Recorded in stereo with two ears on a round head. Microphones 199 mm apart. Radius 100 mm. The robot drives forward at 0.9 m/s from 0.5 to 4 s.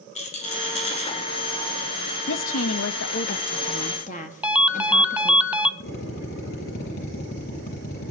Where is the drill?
50° left (ahead or behind), 8.5 m.